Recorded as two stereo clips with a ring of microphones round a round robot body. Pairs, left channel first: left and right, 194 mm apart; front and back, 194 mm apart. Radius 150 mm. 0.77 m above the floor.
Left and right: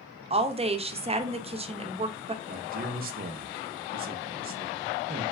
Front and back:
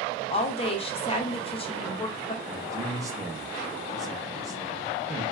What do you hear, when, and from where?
0.3 s a woman speaking: 45° right, 0.6 m
2.5 s a man speaking: 110° right, 0.6 m